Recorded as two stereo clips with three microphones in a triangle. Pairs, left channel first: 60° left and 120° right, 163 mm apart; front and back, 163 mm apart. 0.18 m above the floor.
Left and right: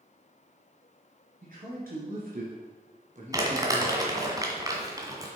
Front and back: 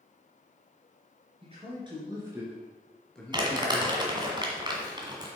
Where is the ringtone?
I don't hear a ringtone.